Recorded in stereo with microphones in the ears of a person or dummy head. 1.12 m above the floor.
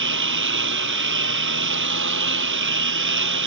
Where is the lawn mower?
65° right (ahead or behind).